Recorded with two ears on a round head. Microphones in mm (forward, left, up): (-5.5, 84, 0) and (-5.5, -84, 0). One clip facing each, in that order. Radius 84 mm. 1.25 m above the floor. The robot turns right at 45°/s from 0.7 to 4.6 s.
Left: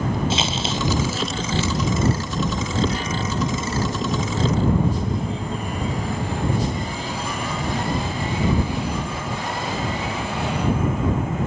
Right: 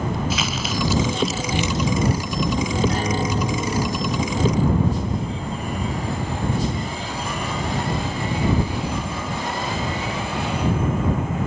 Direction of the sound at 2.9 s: 40° right.